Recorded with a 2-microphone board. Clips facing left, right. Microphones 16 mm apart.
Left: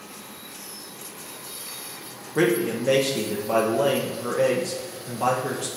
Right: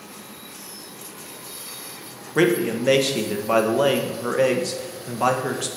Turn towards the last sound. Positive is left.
turn(degrees=-30)  # may be behind; listen again after turning